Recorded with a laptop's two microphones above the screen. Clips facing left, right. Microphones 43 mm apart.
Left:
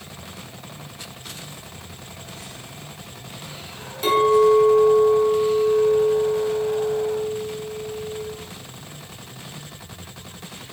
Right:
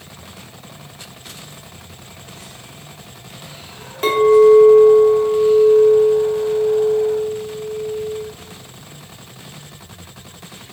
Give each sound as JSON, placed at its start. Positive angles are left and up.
{"t": 4.0, "sound": "a clink", "side_deg": -40, "distance_m": 1.3}